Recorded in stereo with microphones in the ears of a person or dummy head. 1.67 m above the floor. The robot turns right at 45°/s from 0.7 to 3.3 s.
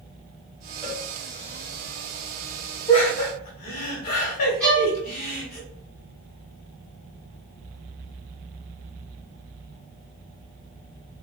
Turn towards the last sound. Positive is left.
turn(degrees=10)  # may be behind; listen again after turning